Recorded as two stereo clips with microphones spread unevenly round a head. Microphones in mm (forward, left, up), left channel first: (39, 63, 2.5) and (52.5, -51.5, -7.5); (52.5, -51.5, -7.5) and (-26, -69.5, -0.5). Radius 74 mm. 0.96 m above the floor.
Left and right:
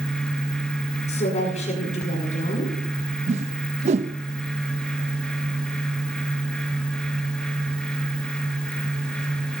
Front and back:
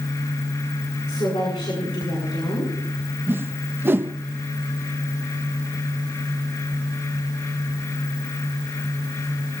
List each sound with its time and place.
1.1 s a woman speaking: 75° left, 7.5 m
3.3 s a whoosh: 105° right, 0.6 m